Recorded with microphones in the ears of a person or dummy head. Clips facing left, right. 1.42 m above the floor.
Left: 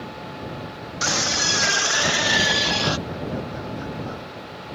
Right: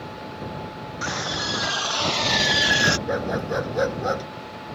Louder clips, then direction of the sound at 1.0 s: Left 3 dB; 45° left (ahead or behind).